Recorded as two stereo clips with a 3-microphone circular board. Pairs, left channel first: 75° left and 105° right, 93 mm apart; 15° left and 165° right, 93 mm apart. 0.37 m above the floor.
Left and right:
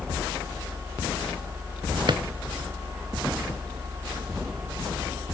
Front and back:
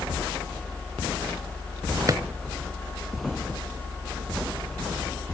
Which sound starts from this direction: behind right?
A drawer, at 2.1 s.